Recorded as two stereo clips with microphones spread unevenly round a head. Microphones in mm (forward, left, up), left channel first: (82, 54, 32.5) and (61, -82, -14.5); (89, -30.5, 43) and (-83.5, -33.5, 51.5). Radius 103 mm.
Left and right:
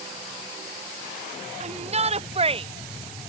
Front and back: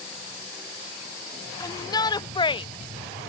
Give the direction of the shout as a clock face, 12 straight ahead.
2 o'clock.